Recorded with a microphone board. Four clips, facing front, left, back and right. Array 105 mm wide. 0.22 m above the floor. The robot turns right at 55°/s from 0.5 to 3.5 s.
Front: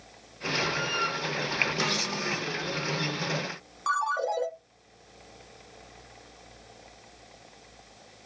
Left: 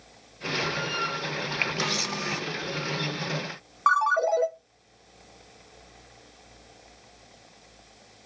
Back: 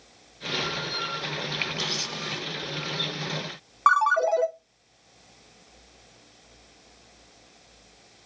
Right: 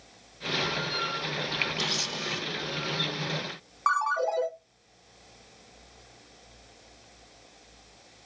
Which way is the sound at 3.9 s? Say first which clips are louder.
Left 4 dB, back 7 dB; 165° left.